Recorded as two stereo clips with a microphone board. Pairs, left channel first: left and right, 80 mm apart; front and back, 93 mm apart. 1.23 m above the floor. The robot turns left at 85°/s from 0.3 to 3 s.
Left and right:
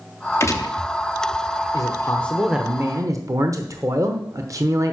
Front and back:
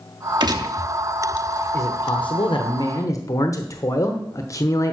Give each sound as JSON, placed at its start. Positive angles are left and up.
{"t": 0.4, "sound": "a gunshot", "azimuth_deg": 145, "distance_m": 0.9}
{"t": 1.7, "sound": "a man speaking", "azimuth_deg": 55, "distance_m": 0.9}